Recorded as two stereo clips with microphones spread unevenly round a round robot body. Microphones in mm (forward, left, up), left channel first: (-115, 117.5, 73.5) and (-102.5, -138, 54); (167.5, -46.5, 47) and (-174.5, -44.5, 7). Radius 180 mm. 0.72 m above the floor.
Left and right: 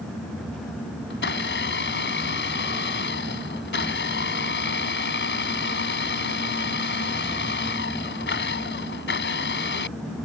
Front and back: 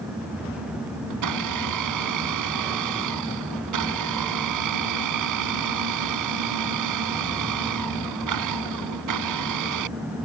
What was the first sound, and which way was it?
A blender, 140° left.